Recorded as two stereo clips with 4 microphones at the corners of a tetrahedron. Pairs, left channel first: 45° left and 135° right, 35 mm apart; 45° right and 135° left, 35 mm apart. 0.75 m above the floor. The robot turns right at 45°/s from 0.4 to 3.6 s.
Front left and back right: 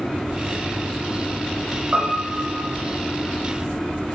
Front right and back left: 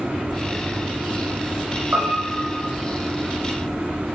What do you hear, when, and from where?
1.9 s a piano: 175° left, 7 m; by 2.7 s 150° right, 7 m